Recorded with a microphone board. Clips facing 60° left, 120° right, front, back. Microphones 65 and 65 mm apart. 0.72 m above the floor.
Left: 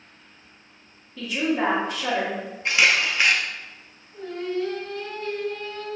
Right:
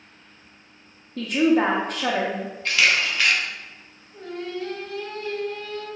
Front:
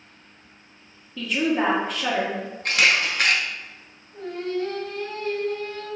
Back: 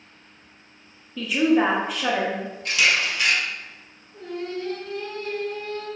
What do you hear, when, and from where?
1.2 s a woman speaking: 95° right, 0.8 m
2.6 s a camera shutter: 5° right, 0.6 m
4.1 s singing: 45° right, 1.3 m